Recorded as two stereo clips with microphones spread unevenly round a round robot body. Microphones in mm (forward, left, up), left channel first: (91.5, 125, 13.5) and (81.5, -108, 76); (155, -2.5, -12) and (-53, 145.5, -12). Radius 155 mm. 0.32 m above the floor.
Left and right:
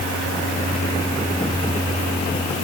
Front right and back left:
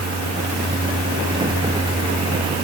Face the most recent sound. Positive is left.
No sound to turn to.